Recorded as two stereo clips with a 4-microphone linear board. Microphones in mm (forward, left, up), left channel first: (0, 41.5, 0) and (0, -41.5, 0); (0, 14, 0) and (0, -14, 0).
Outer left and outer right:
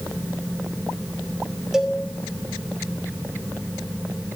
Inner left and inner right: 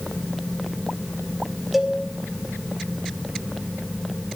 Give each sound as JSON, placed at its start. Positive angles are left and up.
{"t": 1.7, "sound": "a cowbell", "side_deg": -5, "distance_m": 1.1}